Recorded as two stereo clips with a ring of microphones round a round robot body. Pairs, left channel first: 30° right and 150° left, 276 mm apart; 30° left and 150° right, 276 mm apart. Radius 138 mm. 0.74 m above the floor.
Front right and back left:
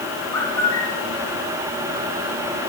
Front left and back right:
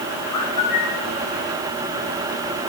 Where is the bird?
50° left, 3.5 m.